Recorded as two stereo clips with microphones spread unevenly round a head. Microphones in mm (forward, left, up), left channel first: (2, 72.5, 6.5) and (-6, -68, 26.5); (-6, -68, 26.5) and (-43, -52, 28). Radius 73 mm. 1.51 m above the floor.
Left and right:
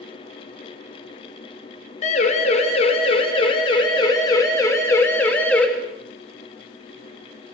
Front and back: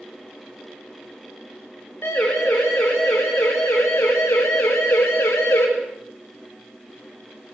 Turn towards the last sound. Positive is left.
turn(degrees=5)